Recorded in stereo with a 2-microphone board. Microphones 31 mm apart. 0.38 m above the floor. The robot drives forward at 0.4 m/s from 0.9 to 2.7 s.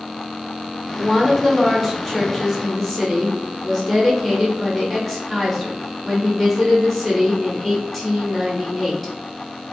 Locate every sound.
1.0 s a woman speaking: 10° left (ahead or behind), 0.8 m